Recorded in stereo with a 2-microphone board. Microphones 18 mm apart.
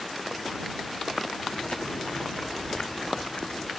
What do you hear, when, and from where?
1.5 s chewing: 70° left (ahead or behind)